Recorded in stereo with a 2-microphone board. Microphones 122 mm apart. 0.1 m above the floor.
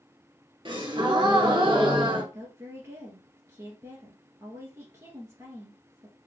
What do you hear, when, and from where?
0.7 s a gasp: 45° right (ahead or behind), 1.3 m
2.3 s a woman speaking: 25° right (ahead or behind), 1.7 m